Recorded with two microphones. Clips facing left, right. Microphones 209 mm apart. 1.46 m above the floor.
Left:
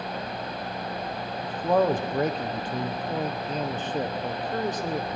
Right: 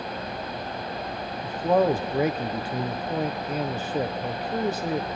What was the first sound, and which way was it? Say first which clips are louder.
A man speaking: right 1 dB; 10° right (ahead or behind).